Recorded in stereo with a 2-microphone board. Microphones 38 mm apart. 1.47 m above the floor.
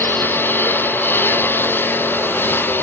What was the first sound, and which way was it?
A lawn mower, 65° left (ahead or behind).